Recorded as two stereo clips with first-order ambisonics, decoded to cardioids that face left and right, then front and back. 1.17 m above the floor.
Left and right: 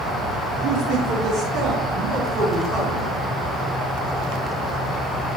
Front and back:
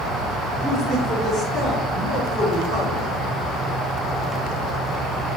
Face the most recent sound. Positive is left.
turn(degrees=-45)